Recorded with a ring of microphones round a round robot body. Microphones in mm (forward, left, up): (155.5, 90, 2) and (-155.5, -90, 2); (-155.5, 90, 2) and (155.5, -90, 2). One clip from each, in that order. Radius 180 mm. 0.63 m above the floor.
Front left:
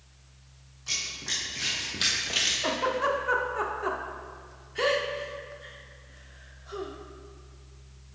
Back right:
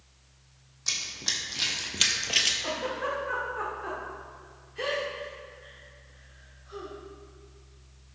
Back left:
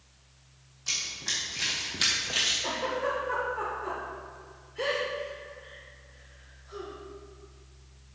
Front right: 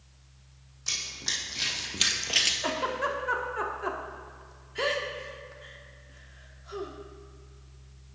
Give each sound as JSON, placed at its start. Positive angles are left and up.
{"t": 0.9, "sound": "running footsteps", "azimuth_deg": -105, "distance_m": 2.5}
{"t": 2.6, "sound": "a giggle", "azimuth_deg": -25, "distance_m": 1.1}